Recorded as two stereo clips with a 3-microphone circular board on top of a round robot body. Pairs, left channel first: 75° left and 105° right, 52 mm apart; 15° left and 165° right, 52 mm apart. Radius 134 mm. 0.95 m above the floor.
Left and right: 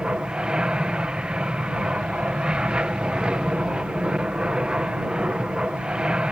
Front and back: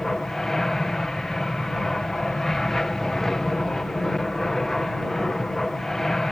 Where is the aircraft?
60° right.